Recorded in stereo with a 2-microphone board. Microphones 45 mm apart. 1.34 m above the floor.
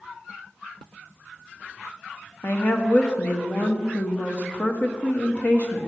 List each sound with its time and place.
2.4 s a woman speaking: 40° left (ahead or behind), 1.1 m